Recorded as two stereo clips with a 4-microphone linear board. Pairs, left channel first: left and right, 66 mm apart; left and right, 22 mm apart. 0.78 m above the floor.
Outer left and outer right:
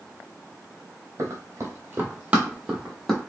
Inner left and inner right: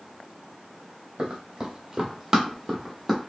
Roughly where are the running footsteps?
Right.